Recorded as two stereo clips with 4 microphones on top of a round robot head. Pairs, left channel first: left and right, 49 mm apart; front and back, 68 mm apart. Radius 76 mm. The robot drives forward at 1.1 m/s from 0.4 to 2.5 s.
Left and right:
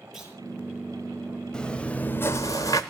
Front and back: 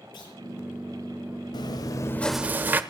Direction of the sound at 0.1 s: 5° right.